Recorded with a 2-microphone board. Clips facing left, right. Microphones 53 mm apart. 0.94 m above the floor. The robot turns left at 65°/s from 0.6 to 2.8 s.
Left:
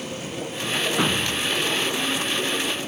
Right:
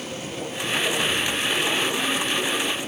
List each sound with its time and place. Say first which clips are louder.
1.0 s a thud: left 1 dB; 125° left; by 1.6 s 85° left